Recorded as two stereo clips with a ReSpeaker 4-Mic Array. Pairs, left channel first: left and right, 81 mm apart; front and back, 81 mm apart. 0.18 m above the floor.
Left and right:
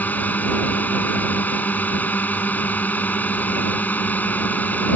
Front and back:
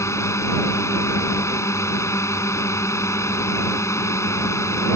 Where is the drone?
30° left.